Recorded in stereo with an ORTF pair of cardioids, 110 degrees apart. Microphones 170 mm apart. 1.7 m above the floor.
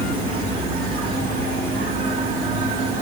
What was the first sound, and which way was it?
An insect, 65° right.